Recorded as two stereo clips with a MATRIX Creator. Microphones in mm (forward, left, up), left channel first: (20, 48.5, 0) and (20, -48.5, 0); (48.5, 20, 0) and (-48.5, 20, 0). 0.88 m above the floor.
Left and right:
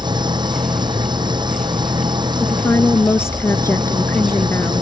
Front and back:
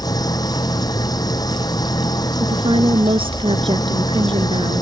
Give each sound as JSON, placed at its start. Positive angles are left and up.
{"t": 0.0, "sound": "an engine running", "azimuth_deg": -50}
{"t": 2.4, "sound": "a woman speaking", "azimuth_deg": 155}